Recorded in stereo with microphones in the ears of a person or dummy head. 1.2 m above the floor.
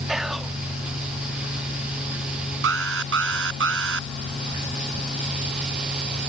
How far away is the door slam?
I don't hear a door slam.